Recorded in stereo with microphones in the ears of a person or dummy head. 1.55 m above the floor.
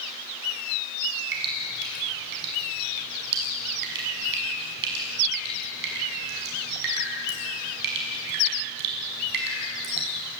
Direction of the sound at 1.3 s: 65° right (ahead or behind).